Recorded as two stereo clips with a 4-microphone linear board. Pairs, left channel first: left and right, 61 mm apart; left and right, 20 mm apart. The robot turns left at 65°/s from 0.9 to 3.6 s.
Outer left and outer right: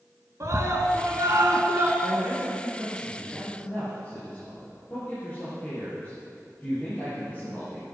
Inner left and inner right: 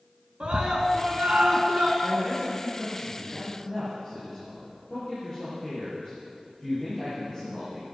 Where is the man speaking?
70° right (ahead or behind), 6.5 m; by 7.8 s 25° left (ahead or behind), 6.5 m.